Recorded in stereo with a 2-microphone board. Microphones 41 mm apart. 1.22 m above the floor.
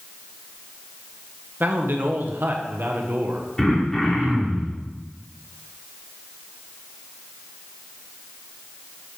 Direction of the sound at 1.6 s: 55° right (ahead or behind).